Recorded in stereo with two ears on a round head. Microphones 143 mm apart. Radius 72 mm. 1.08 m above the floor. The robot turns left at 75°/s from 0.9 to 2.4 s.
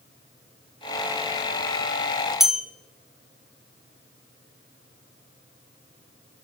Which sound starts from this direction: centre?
A bell, at 2.4 s.